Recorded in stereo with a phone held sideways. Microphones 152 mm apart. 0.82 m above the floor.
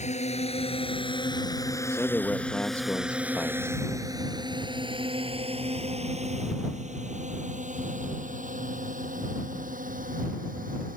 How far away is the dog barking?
No dog barking in this recording.